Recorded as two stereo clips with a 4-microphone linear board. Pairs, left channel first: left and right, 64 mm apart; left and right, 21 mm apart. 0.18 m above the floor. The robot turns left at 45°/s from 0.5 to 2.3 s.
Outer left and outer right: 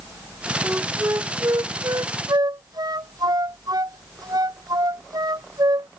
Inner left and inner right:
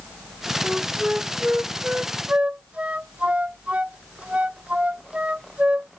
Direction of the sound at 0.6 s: 20° right (ahead or behind).